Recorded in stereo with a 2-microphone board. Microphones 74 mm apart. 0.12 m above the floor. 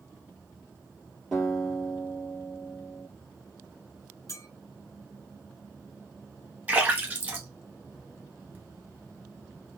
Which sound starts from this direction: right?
A splash, at 6.7 s.